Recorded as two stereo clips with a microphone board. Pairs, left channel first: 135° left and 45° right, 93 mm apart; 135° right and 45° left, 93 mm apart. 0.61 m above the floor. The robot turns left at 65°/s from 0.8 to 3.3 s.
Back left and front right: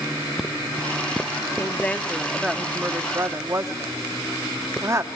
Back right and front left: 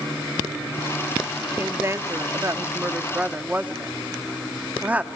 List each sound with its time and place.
1.6 s a woman speaking: 95° left, 1.0 m; by 5.1 s 15° right, 1.0 m